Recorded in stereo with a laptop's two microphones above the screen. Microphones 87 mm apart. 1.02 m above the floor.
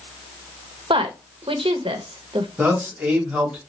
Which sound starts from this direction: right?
A woman speaking, at 0.9 s.